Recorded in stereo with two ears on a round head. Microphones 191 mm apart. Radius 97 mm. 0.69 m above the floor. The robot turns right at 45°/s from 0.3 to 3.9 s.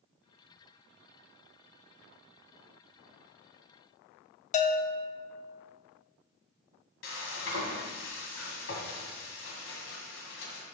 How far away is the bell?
About 0.7 m.